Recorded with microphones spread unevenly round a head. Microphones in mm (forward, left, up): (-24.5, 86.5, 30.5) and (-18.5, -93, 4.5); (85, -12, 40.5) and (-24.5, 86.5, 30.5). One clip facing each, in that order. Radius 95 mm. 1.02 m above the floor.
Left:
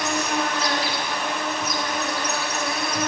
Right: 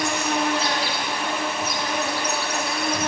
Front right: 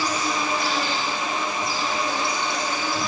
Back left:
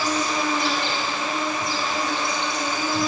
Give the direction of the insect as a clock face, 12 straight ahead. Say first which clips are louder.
Right 1 dB, back left 2 dB; 5 o'clock.